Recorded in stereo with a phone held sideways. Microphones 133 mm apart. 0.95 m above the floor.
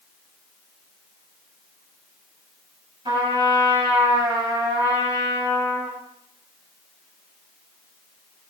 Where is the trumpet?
35° right (ahead or behind), 7 m.